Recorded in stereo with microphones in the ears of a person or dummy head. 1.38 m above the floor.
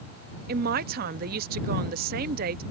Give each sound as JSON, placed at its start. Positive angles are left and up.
{"t": 0.5, "sound": "a man speaking", "side_deg": -50}